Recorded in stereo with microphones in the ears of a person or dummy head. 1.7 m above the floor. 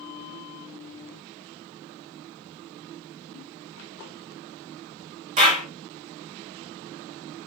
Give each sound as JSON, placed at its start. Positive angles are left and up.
{"t": 3.3, "sound": "a giggle", "side_deg": -25, "distance_m": 2.0}
{"t": 5.4, "sound": "a clap", "side_deg": -45, "distance_m": 1.5}